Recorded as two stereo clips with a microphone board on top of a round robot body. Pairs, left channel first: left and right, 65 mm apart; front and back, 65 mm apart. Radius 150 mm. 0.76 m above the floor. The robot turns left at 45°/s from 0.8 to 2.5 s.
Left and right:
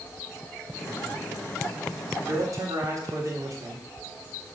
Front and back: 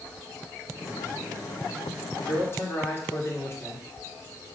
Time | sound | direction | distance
2.2 | a man speaking | 40° right | 2 m